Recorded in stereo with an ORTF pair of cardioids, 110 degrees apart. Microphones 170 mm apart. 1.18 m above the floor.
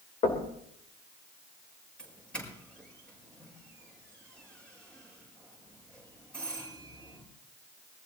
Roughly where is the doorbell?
Ahead.